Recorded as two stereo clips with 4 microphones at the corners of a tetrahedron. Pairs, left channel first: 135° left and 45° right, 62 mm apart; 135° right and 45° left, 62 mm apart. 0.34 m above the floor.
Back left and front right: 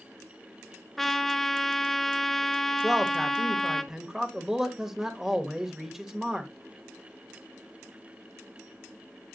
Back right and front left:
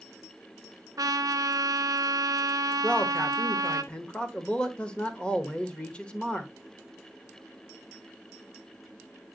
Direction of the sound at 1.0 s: 50° left.